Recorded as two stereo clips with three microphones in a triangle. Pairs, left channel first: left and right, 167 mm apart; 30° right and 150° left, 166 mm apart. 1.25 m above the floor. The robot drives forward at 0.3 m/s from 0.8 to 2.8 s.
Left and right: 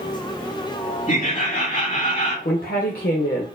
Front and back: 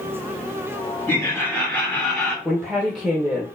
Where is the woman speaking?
55° left, 0.8 m; by 3.5 s 60° left, 0.7 m.